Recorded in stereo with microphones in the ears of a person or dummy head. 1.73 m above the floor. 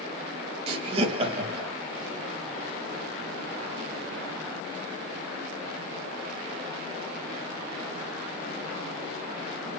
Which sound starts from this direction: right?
Laughter, at 0.7 s.